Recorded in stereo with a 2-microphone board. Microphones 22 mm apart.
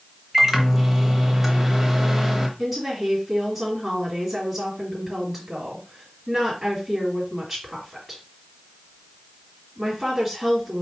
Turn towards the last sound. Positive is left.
turn(degrees=-5)  # may be behind; listen again after turning